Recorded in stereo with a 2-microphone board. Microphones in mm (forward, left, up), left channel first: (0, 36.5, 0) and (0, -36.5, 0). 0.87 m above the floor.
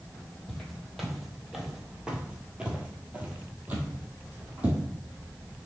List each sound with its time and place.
0.5 s footsteps: 5° left (ahead or behind), 1.2 m; by 4.8 s 20° right (ahead or behind), 1.5 m